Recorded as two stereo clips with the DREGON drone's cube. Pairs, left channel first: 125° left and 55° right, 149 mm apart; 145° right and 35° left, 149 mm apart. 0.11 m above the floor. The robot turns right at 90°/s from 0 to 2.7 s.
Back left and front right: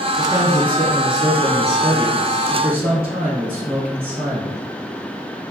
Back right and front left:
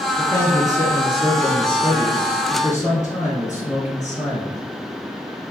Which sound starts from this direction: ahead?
A man speaking, at 0.2 s.